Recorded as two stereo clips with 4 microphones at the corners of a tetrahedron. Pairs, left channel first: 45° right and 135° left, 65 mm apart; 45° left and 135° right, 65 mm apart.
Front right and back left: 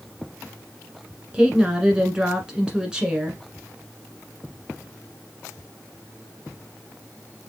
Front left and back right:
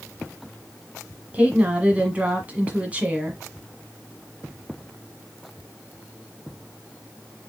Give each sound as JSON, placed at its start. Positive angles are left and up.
{"t": 1.3, "sound": "a woman speaking", "azimuth_deg": -165, "distance_m": 1.2}